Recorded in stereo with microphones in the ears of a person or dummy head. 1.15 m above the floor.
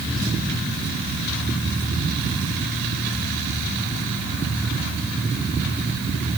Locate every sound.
Only background noise.